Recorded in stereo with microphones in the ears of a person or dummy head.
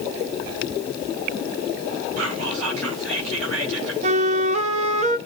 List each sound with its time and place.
2.2 s whispering: 80° right, 5 m
4.0 s a flute: 40° right (ahead or behind), 0.8 m